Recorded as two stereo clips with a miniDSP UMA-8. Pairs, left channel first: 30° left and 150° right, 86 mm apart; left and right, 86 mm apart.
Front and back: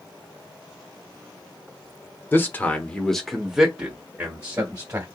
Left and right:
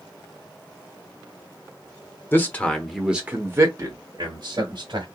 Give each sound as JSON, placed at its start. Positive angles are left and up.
{"t": 2.3, "sound": "a man speaking", "azimuth_deg": 60, "distance_m": 0.9}